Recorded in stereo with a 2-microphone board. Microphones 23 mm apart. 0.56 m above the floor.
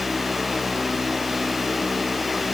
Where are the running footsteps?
No running footsteps in this recording.